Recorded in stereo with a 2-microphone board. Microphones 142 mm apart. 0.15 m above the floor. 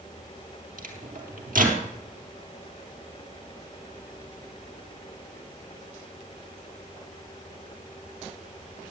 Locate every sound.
0.8 s a microwave: 70° right (ahead or behind), 2.5 m